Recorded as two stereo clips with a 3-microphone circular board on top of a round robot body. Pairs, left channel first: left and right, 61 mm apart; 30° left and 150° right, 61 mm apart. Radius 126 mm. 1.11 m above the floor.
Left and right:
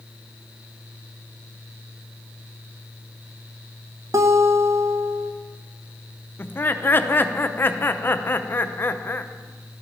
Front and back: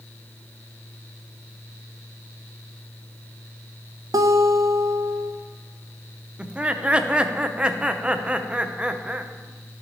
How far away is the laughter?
About 0.7 m.